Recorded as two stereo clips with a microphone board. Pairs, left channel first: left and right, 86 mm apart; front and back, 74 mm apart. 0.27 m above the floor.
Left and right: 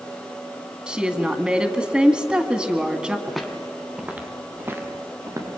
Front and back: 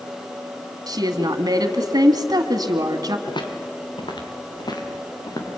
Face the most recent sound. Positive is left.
turn(degrees=-35)